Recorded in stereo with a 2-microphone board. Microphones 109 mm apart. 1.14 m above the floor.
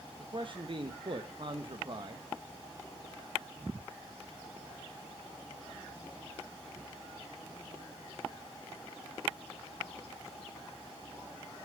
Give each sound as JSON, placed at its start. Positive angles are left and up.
{"t": 0.2, "sound": "a man speaking", "side_deg": -50, "distance_m": 1.0}